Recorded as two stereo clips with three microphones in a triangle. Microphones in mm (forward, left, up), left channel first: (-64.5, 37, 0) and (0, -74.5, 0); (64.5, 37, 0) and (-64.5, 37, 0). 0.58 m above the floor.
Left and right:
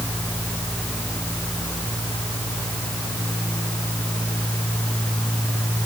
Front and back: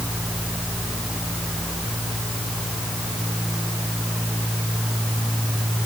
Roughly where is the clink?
I don't hear a clink.